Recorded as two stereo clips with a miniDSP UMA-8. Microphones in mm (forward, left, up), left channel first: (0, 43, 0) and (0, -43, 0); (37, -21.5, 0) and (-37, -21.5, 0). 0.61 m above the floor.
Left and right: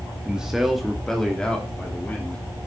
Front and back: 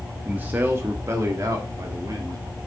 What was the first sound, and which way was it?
A man speaking, 150° right.